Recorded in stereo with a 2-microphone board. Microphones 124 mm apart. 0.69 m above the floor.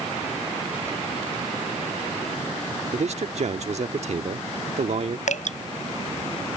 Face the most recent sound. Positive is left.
turn(degrees=80)